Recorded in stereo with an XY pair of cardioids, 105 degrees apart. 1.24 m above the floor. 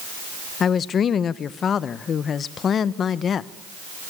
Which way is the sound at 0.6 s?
55° left.